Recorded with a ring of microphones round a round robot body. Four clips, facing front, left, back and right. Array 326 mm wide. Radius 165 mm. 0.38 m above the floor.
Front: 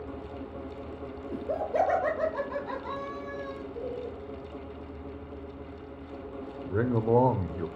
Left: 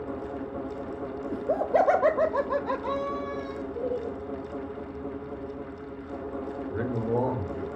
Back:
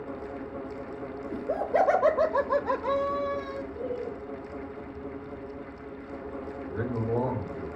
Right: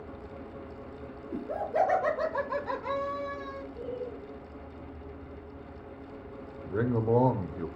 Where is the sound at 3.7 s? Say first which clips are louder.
Left 7 dB, back 2 dB; 85° left, 2.5 m.